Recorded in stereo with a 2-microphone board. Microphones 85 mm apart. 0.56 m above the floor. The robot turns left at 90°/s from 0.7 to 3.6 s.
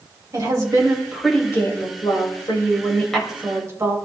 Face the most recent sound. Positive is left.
turn(degrees=-35)